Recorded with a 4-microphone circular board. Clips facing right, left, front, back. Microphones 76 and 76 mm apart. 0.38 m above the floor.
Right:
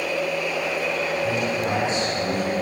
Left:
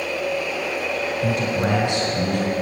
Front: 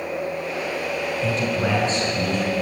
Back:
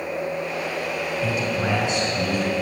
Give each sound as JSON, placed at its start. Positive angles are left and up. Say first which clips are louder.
{"t": 1.2, "sound": "a man speaking", "louder": "left 2 dB, front 1 dB", "azimuth_deg": 100, "distance_m": 3.5}